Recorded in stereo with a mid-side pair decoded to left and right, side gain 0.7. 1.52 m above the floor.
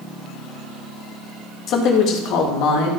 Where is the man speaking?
45° left, 2 m; by 2.9 s 65° left, 2.5 m.